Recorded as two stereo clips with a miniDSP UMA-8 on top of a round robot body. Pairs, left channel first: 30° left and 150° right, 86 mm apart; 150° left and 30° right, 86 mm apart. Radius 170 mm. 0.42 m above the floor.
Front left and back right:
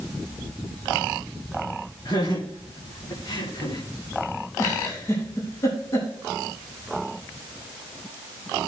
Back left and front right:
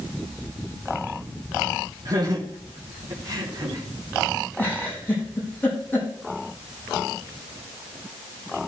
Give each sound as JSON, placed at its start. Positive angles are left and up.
{"t": 2.0, "sound": "laughter", "azimuth_deg": 0, "distance_m": 3.5}
{"t": 4.6, "sound": "a giggle", "azimuth_deg": 80, "distance_m": 5.0}